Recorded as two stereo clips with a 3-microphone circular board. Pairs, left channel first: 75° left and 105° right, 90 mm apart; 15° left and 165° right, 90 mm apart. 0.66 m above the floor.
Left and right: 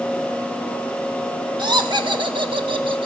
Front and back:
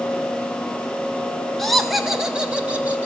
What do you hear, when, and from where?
1.6 s laughter: 70° right, 1.7 m; by 3.1 s 95° right, 2 m